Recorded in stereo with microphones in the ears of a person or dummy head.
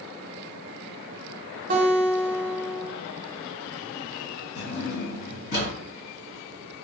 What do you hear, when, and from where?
1.7 s a guitar: 45° right (ahead or behind), 0.6 m
4.5 s a drawer: 60° left (ahead or behind), 1.7 m